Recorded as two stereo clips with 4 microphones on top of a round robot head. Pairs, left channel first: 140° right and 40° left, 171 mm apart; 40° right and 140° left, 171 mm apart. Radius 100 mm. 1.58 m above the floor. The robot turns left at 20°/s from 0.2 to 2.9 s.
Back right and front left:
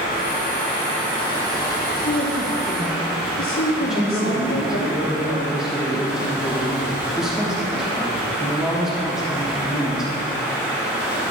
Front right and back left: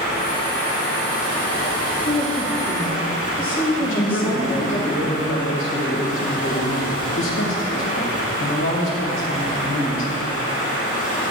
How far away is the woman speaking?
About 1.1 m.